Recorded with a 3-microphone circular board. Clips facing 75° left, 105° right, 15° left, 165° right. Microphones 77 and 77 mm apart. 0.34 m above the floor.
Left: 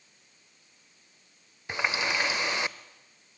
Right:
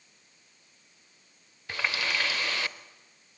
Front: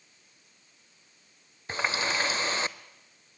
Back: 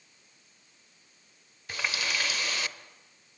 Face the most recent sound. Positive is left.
turn(degrees=25)